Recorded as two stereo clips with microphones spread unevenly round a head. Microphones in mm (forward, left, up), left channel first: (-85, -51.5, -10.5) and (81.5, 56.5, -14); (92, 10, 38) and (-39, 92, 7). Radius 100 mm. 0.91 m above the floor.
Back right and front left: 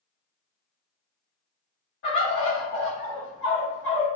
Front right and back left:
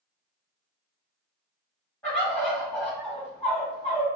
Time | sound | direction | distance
2.0 | a bird | 115° right | 1.7 m